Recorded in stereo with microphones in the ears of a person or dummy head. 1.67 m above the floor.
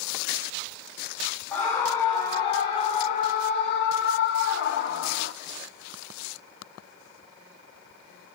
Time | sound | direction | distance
1.5 | a scream | 15° left (ahead or behind) | 1.6 m